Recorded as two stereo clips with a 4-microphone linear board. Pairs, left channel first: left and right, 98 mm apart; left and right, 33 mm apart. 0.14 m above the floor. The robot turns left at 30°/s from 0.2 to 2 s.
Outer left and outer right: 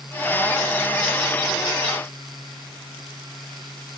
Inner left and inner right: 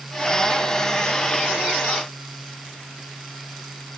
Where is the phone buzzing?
No phone buzzing in this recording.